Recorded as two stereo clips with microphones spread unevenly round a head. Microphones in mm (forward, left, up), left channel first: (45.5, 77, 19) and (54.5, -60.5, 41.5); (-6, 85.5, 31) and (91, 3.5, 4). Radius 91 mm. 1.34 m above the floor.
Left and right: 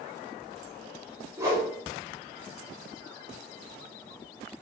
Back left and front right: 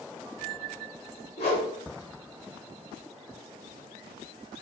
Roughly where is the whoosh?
Behind.